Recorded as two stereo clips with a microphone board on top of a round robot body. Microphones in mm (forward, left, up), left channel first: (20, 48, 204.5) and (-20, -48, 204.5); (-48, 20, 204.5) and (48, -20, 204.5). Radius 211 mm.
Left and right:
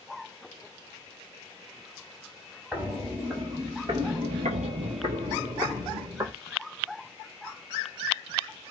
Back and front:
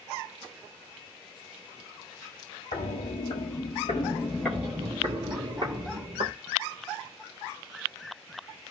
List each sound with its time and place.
2.7 s footsteps: 170° left, 1.4 m; by 6.3 s 50° right, 1.5 m